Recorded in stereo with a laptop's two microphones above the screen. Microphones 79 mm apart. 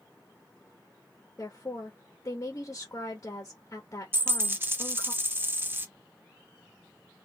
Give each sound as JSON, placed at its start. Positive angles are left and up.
{"t": 1.4, "sound": "a woman speaking", "side_deg": 35, "distance_m": 1.1}
{"t": 4.1, "sound": "a dropped coin", "side_deg": -25, "distance_m": 0.6}